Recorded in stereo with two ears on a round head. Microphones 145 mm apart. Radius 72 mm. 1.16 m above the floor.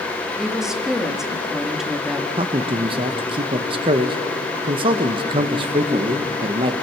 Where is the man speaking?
30° right (ahead or behind), 1.2 m.